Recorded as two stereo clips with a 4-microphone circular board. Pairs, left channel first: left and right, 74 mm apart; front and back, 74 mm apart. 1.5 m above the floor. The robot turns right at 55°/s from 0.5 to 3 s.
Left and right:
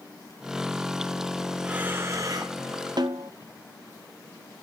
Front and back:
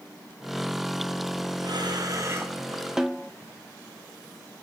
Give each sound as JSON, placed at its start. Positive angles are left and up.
{"t": 1.6, "sound": "breathing", "azimuth_deg": -170, "distance_m": 1.3}
{"t": 3.0, "sound": "a snare drum", "azimuth_deg": -100, "distance_m": 0.7}